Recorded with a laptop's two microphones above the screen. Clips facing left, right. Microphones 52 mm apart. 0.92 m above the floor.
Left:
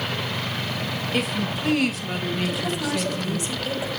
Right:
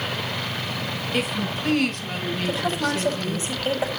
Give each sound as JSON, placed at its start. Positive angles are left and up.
{"t": 1.1, "sound": "a woman speaking", "side_deg": 0, "distance_m": 4.0}
{"t": 2.5, "sound": "a woman speaking", "side_deg": -30, "distance_m": 7.0}